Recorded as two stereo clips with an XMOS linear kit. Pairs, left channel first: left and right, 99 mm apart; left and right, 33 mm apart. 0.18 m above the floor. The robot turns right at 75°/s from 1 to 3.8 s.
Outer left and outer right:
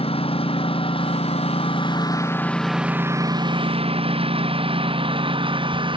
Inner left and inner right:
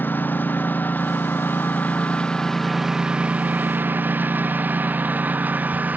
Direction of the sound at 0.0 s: 75° left (ahead or behind).